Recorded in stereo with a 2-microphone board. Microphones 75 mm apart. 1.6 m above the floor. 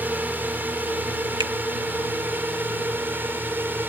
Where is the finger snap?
80° right.